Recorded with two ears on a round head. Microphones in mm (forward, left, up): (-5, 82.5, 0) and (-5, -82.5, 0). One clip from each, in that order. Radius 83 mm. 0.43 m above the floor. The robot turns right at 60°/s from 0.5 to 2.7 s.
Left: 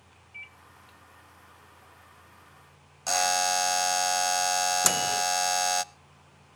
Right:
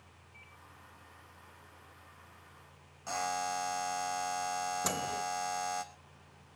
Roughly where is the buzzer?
Left.